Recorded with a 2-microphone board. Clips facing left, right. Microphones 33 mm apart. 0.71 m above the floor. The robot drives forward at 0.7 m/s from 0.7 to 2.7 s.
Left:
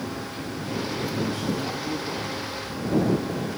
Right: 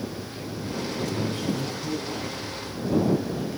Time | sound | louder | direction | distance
1.1 | a man speaking | left 1 dB | 40° right (ahead or behind) | 5.5 m